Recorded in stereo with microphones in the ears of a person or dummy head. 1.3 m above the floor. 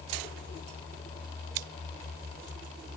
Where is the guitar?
No guitar in this recording.